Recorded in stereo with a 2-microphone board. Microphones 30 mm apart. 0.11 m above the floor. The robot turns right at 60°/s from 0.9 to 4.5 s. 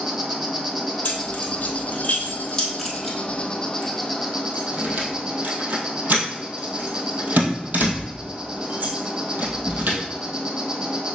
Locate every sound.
0.0 s an insect: 5° right, 1.4 m; by 11.2 s 150° right, 1.4 m
1.1 s keys jangling: 55° left (ahead or behind), 2 m; by 10.0 s 70° right (ahead or behind), 2 m